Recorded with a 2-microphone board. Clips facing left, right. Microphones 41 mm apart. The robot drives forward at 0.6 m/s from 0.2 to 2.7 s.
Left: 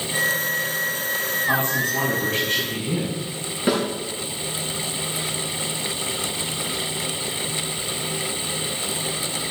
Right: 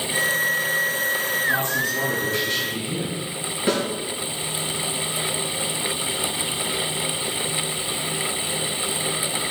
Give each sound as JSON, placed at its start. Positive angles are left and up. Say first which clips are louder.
{"t": 1.5, "sound": "a man speaking", "louder": "left 3 dB", "side_deg": 60, "distance_m": 4.5}
{"t": 3.7, "sound": "a snare drum", "louder": "left 1 dB", "side_deg": 10, "distance_m": 5.0}